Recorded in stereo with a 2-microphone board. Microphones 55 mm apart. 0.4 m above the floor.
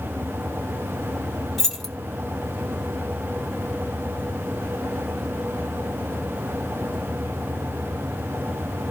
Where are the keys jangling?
Centre (ahead or behind), 1.6 m.